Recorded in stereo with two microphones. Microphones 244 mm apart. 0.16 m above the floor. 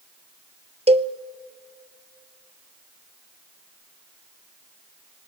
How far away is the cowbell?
About 0.7 m.